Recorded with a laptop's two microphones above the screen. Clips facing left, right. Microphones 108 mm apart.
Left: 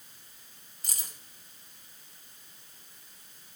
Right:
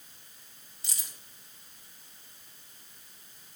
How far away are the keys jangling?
About 3 m.